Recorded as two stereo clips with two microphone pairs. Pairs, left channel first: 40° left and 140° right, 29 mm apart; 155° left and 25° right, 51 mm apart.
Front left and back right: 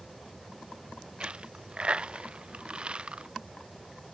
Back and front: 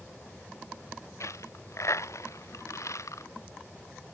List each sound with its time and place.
1.2 s a dropped coin: 170° left